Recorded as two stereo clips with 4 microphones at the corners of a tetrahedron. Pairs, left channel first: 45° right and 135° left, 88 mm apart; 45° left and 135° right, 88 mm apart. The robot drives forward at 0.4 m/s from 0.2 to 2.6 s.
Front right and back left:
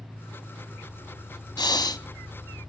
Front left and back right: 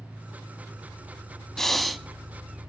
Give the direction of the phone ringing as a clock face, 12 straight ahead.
I don't hear a phone ringing.